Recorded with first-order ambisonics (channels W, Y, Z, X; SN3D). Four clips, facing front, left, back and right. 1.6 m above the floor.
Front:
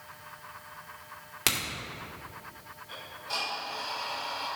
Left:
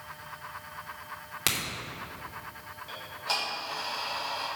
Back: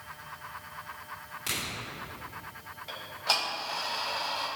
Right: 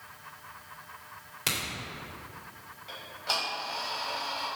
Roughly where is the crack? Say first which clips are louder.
Left 1 dB, front 5 dB; ahead left.